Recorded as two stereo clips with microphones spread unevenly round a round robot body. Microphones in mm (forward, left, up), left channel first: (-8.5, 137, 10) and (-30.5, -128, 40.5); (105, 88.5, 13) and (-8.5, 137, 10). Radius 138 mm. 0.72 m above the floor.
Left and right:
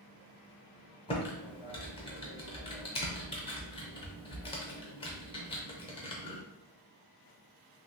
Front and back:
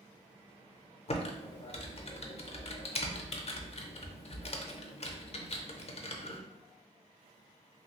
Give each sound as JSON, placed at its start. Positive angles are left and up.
{"t": 1.1, "sound": "typing on a keyboard", "azimuth_deg": 10, "distance_m": 0.6}